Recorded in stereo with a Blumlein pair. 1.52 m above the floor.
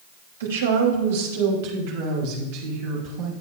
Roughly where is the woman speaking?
Ahead right.